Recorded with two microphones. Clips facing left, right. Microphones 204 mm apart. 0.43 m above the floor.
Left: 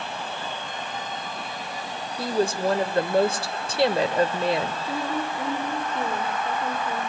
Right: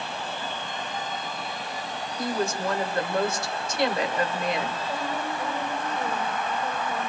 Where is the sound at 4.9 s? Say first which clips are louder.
Left 2 dB; 85° left, 9.5 m.